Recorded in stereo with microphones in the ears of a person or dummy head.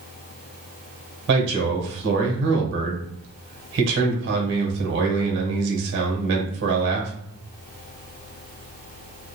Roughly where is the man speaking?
Right.